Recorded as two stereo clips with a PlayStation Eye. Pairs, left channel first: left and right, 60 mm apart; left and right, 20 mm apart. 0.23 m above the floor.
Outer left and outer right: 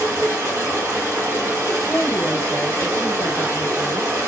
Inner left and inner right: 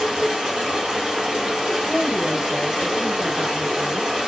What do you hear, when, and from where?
0.0 s running water: 60° right (ahead or behind), 1.5 m
1.9 s a woman speaking: 10° left (ahead or behind), 1.1 m